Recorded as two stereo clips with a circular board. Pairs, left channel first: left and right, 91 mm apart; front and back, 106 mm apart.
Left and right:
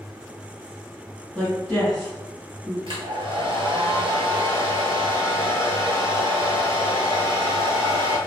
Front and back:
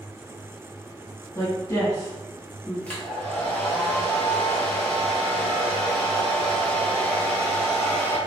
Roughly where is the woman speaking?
Ahead.